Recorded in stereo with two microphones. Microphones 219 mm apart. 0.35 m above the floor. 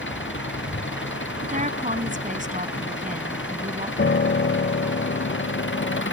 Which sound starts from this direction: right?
A woman speaking, at 1.4 s.